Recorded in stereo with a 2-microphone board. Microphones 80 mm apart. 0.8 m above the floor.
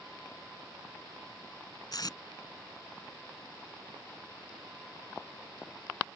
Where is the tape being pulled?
60° left (ahead or behind).